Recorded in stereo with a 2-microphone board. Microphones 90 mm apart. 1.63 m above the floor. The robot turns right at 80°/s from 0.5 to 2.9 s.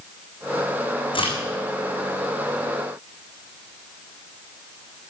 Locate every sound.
1.1 s a crack: 70° left (ahead or behind), 6.5 m; by 1.3 s 85° left, 6.5 m